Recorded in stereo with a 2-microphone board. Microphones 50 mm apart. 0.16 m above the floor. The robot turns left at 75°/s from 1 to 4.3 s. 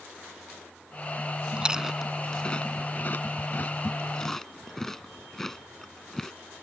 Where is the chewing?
20° right (ahead or behind); by 6.3 s 5° left (ahead or behind).